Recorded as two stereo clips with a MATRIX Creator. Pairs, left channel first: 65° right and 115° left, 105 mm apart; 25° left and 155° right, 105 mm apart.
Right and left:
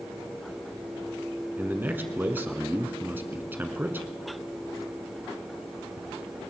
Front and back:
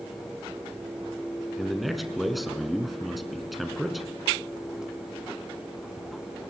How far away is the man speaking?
About 1.3 m.